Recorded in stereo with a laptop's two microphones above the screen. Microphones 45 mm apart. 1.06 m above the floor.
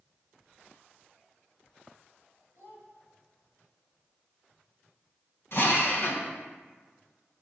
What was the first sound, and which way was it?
A child speaking, 50° left (ahead or behind).